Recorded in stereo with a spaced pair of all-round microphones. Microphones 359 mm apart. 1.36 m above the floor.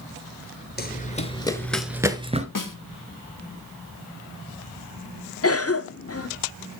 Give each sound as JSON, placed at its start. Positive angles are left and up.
{"t": 0.8, "sound": "running footsteps", "side_deg": 25, "distance_m": 1.6}
{"t": 2.5, "sound": "a snare drum", "side_deg": 60, "distance_m": 1.3}
{"t": 5.4, "sound": "a cough", "side_deg": 40, "distance_m": 1.0}